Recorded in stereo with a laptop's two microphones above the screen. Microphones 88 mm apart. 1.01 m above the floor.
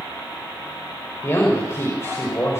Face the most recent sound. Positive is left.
turn(degrees=30)  # may be behind; listen again after turning